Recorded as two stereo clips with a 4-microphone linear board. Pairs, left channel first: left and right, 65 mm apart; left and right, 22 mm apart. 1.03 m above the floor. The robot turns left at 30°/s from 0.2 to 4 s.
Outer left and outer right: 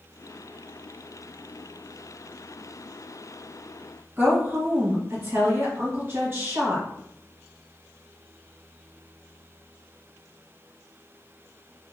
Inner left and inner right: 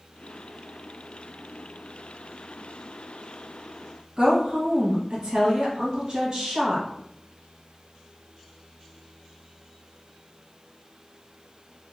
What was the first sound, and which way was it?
A woman speaking, 35° right (ahead or behind).